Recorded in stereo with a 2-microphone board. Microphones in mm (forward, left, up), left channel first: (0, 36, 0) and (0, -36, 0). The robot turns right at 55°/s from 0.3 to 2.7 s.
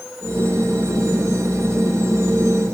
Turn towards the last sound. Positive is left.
No sound to turn to.